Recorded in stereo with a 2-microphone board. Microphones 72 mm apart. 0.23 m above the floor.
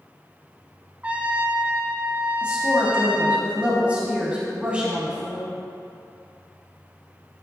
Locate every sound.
1.0 s a trumpet: 20° right (ahead or behind), 0.6 m
2.4 s a woman speaking: 15° right (ahead or behind), 1.2 m